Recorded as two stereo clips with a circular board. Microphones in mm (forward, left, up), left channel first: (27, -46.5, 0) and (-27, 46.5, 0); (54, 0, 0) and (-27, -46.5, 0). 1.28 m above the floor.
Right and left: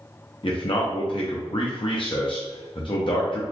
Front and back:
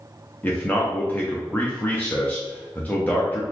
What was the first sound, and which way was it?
A man speaking, 40° right.